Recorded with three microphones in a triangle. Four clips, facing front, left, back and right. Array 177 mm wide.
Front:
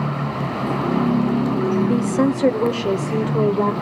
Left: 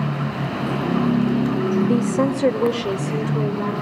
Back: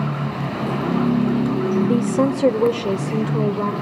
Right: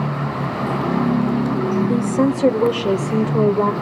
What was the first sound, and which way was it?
A woman speaking, 155° left.